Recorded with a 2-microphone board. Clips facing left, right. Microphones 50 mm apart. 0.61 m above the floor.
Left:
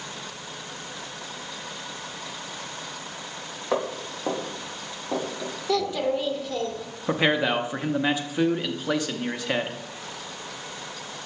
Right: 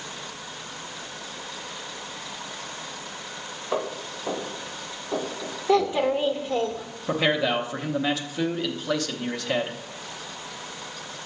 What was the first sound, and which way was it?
Footsteps, 75° left (ahead or behind).